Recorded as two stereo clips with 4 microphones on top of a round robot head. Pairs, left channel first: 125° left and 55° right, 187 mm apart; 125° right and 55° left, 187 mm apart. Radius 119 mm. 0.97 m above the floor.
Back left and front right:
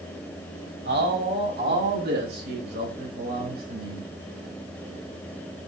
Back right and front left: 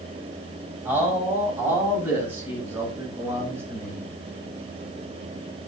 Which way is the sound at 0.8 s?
25° right.